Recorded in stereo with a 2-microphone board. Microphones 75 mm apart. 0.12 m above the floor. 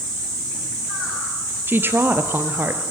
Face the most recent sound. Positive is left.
turn(degrees=-30)  # may be behind; listen again after turning